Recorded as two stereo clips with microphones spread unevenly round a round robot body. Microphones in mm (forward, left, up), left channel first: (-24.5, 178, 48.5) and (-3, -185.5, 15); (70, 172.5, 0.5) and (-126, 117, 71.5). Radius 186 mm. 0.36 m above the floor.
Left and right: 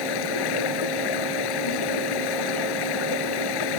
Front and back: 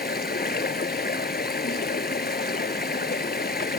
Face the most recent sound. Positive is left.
turn(degrees=60)